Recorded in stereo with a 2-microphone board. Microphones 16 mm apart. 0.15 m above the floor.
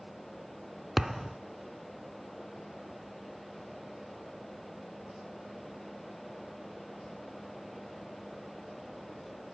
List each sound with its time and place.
1.0 s a thud: 10° right (ahead or behind), 0.6 m